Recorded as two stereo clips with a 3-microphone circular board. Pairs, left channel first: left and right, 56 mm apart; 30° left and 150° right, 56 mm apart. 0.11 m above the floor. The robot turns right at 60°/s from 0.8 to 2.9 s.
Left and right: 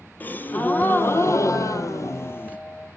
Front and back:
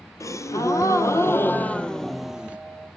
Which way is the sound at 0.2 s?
40° left.